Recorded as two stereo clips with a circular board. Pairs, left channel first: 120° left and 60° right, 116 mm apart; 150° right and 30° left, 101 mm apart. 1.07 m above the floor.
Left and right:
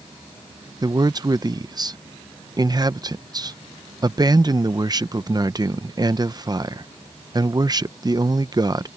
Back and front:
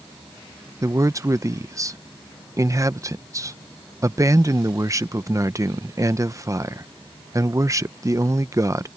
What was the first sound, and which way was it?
A man speaking, 20° right.